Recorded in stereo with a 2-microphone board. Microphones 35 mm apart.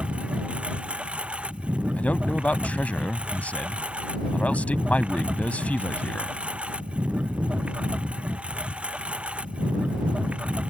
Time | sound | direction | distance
0.0 | a lawn mower | 35° right (ahead or behind) | ?
2.0 | a man speaking | 50° left (ahead or behind) | ?